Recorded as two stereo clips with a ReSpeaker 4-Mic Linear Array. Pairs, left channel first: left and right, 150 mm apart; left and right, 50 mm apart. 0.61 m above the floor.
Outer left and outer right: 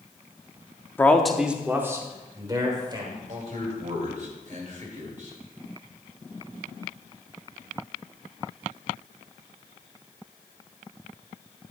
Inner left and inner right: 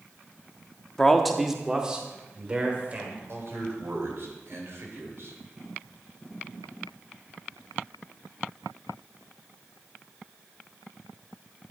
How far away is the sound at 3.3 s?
About 2.5 m.